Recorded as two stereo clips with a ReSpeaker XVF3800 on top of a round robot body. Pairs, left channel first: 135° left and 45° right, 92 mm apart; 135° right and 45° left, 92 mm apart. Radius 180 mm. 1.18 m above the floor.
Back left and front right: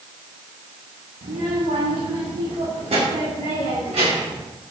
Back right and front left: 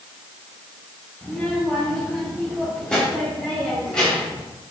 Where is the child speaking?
50° right, 1.5 m; by 4.4 s 55° right, 3.5 m.